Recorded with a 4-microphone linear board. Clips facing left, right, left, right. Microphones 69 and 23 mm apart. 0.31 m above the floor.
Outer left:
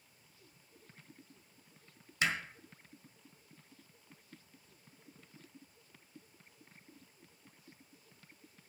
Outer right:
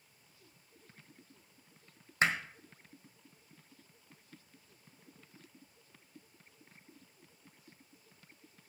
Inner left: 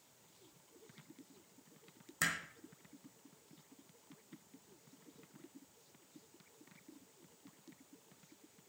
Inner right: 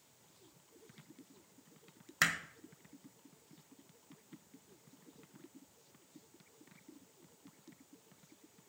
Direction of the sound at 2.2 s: 35° right (ahead or behind).